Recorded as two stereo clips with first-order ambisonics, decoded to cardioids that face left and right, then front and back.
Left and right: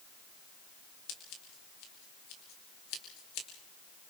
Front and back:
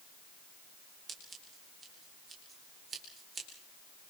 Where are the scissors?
115° left, 4.5 m.